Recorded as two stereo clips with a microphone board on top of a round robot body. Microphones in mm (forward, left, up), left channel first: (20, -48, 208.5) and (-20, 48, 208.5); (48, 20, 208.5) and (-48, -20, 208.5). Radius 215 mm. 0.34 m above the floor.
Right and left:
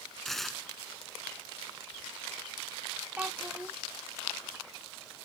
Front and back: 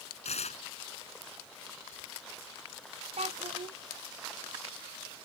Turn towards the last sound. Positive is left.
turn(degrees=-170)